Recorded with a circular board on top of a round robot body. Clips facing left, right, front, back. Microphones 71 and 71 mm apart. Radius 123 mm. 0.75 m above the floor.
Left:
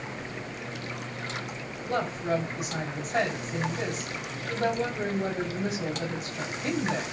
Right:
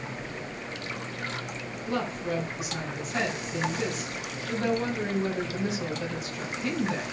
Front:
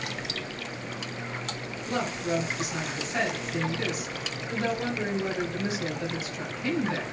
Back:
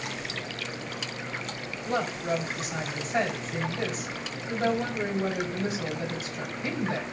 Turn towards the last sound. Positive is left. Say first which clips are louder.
# left 2 dB, back 1 dB
turn(degrees=130)